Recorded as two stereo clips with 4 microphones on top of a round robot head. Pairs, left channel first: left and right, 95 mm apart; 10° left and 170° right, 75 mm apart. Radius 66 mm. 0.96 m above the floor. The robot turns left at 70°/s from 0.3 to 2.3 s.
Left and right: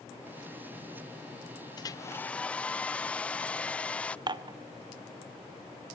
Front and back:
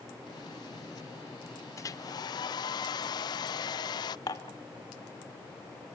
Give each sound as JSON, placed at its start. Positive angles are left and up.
{"t": 1.8, "sound": "a hair dryer", "azimuth_deg": 50, "distance_m": 0.5}
{"t": 4.3, "sound": "dishes clattering", "azimuth_deg": -45, "distance_m": 1.0}